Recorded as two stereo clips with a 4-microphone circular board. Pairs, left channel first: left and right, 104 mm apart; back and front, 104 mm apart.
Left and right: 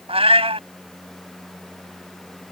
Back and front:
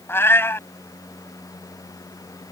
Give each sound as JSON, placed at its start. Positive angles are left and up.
{"t": 0.1, "sound": "a cat meowing", "azimuth_deg": -110}